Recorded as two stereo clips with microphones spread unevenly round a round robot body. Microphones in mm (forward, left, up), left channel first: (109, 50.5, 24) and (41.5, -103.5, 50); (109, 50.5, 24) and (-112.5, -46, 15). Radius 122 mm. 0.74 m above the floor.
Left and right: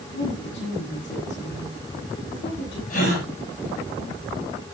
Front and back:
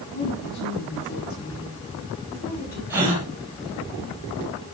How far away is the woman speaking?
About 8 m.